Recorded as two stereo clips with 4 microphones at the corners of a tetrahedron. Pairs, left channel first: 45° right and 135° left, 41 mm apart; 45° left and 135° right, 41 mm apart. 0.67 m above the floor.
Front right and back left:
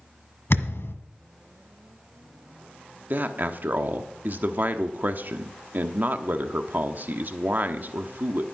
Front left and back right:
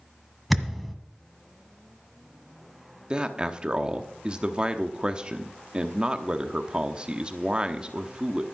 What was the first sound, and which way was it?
A thud, 45° right.